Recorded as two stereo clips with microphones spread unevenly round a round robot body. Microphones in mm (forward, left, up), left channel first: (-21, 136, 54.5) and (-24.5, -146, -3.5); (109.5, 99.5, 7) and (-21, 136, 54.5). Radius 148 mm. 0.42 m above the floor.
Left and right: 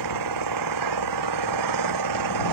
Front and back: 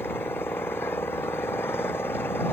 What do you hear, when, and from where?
0.0 s an engine running: 100° right